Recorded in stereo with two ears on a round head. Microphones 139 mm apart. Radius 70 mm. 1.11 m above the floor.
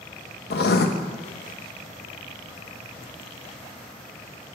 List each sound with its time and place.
0.5 s writing: 60° left (ahead or behind), 0.9 m